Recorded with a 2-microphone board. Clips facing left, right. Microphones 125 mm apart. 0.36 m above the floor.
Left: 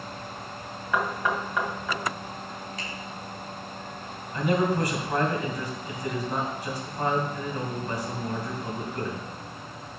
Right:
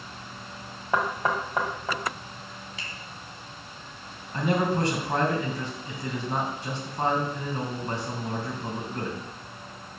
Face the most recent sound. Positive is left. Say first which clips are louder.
# left 1 dB
turn(degrees=-25)  # may be behind; listen again after turning